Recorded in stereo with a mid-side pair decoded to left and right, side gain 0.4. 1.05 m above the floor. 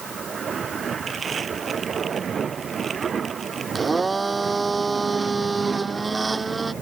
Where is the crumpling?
50° right.